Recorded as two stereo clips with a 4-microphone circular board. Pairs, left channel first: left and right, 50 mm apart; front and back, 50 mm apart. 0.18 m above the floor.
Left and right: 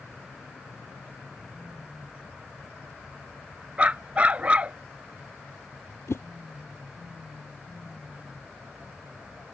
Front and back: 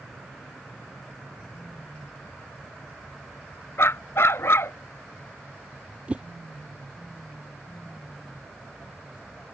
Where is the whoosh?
115° left.